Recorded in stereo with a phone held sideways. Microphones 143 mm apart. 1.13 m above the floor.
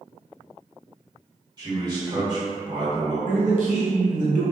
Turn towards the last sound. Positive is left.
turn(degrees=-65)  # may be behind; listen again after turning